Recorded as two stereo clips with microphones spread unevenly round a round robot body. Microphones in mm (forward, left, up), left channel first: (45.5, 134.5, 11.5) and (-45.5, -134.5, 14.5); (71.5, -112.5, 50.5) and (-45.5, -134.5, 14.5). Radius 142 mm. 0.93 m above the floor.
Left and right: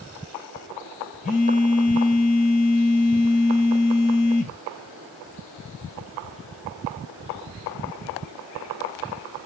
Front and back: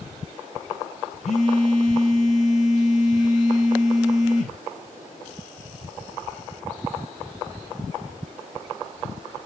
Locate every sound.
1.2 s a phone buzzing: 20° left, 1.1 m